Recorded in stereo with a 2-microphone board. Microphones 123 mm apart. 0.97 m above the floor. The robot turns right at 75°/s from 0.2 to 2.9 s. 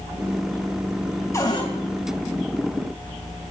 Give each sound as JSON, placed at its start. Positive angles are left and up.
{"t": 1.3, "sound": "a cupboard door", "side_deg": 20, "distance_m": 2.5}